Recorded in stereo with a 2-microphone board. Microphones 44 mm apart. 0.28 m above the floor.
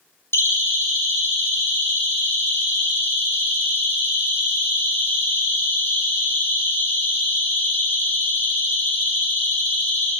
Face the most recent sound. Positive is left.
turn(degrees=50)  # may be behind; listen again after turning